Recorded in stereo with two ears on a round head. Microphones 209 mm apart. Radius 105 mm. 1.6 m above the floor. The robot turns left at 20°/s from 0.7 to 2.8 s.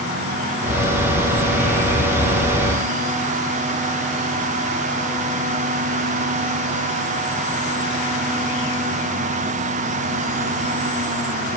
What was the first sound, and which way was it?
Only background noise.